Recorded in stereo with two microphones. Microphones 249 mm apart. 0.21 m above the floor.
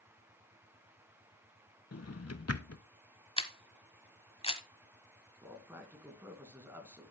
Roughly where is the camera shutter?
Left.